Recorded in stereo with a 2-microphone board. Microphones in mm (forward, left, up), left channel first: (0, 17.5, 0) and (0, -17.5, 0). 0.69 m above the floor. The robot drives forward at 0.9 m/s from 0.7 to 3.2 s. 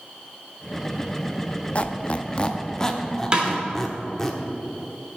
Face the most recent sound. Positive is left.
turn(degrees=-25)  # may be behind; listen again after turning